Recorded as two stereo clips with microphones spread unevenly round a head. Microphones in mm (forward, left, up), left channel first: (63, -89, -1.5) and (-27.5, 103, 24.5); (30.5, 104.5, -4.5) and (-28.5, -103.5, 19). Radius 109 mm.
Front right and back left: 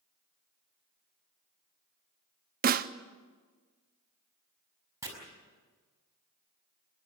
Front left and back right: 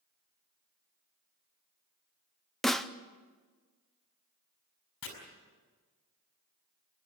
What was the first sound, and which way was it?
A snare drum, 155° left.